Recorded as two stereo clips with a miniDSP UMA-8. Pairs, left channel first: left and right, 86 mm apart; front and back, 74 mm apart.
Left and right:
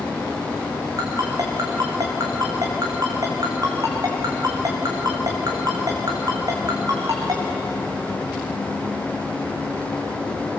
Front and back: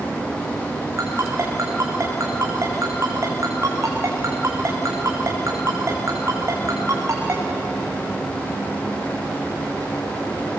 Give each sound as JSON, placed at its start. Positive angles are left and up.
{"t": 1.0, "sound": "a ringtone", "azimuth_deg": -130, "distance_m": 4.0}